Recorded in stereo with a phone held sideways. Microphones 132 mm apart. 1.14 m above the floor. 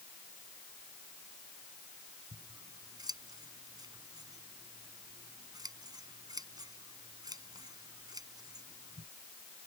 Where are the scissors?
30° right (ahead or behind).